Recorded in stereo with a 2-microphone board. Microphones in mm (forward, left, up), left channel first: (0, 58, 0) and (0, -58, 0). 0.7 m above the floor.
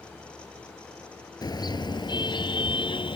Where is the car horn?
35° left (ahead or behind); by 3.2 s 50° left (ahead or behind).